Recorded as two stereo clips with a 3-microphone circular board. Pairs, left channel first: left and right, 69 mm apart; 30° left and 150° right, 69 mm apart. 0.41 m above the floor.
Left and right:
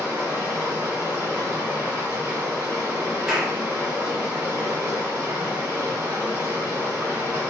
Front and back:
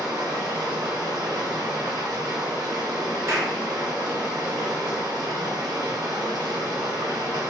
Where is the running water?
150° right, 1.4 m.